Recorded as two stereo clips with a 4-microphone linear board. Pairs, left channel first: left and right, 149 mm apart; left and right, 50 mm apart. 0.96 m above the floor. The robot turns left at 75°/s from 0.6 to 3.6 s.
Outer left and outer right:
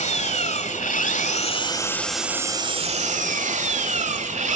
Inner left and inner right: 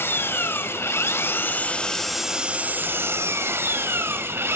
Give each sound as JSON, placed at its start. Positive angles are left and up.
{"t": 0.0, "sound": "an engine running", "azimuth_deg": 115, "distance_m": 1.4}